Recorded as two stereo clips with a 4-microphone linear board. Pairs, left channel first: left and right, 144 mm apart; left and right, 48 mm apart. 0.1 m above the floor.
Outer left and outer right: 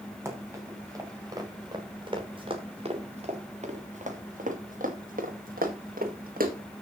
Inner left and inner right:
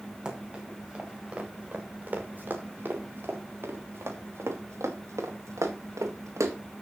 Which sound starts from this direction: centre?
Running footsteps, at 0.2 s.